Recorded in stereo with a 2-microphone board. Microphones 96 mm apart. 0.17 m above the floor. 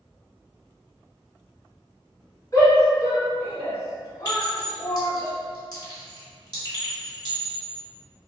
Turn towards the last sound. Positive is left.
turn(degrees=45)  # may be behind; listen again after turning